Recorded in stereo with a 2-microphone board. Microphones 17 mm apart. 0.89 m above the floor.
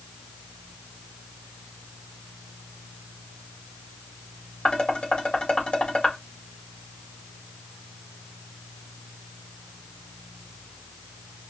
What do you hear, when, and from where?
4.7 s dishes clattering: 80° left, 2.5 m